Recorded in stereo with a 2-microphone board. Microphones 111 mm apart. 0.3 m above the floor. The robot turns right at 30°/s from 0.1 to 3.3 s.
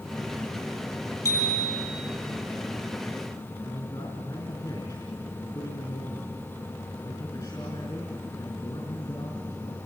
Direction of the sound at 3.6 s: 45° left (ahead or behind).